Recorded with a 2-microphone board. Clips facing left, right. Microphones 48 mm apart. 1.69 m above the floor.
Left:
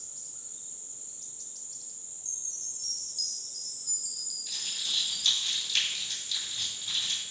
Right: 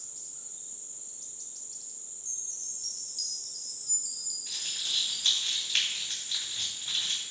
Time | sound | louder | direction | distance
2.2 | a chime | left 1 dB | 5° right (ahead or behind) | 1.3 m
4.5 | crumpling | even | 35° right (ahead or behind) | 2.5 m